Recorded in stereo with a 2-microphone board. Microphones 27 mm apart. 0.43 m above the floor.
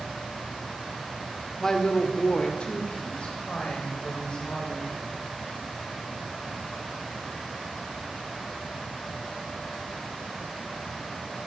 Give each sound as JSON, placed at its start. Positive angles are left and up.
{"t": 1.6, "sound": "a woman speaking", "side_deg": 15, "distance_m": 0.8}